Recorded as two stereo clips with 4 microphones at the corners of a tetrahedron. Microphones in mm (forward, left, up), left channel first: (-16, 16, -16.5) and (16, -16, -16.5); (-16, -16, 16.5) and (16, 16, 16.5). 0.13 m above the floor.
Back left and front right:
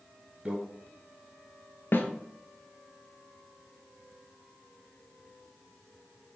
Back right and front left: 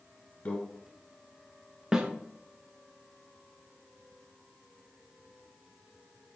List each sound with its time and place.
0.5 s a microwave: 95° right, 1.3 m
1.9 s a snare drum: 115° left, 0.5 m